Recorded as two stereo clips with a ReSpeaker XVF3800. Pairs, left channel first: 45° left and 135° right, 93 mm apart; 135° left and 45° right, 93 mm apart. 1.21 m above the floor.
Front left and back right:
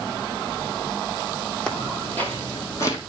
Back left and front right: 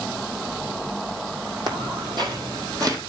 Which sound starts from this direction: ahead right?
Footsteps, at 1.7 s.